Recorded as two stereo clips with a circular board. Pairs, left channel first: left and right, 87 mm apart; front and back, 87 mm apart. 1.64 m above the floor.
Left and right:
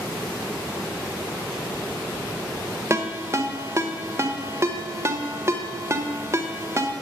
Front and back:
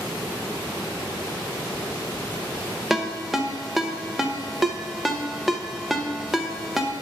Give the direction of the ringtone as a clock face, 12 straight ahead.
3 o'clock.